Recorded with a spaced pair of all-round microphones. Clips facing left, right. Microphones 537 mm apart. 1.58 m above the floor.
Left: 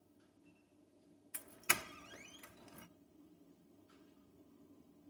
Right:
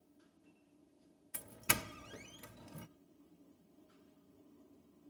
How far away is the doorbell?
About 0.7 m.